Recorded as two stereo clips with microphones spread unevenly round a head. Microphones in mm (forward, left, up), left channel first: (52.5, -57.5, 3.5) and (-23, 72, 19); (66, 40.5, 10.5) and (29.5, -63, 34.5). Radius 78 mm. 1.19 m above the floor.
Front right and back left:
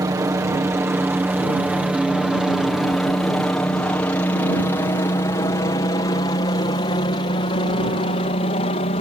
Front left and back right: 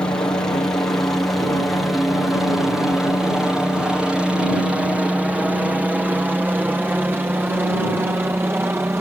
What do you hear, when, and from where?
0.0 s a helicopter: 85° left; by 9.0 s 35° right